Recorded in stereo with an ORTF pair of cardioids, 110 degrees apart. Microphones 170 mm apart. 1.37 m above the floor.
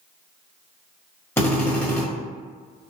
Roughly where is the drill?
Ahead.